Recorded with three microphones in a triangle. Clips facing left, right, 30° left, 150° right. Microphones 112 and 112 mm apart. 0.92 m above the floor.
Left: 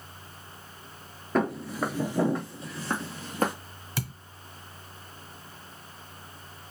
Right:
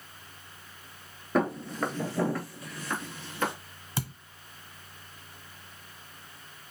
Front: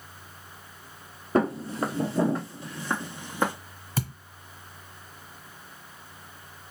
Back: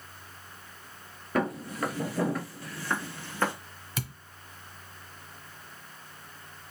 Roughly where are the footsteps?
Ahead.